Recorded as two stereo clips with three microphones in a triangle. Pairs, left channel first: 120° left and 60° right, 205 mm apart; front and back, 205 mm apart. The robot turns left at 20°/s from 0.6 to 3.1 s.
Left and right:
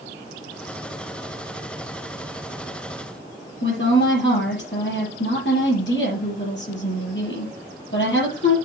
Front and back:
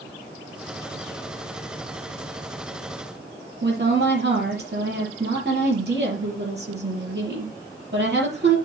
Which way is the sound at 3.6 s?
145° left.